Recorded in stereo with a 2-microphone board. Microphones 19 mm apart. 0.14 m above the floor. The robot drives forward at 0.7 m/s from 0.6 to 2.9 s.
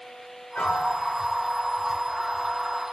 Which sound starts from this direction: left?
A piano, at 0.6 s.